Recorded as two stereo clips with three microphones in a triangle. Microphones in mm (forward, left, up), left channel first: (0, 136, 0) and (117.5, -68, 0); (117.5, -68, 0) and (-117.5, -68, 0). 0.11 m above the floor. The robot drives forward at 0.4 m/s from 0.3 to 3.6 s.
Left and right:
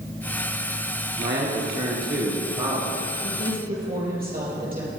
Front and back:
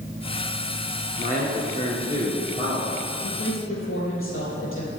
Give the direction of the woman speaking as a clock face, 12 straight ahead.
12 o'clock.